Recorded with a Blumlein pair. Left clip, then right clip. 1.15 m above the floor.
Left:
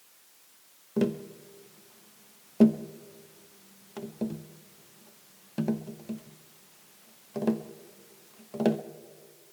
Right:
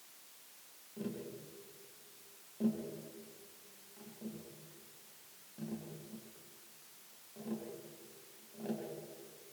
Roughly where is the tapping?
Ahead left.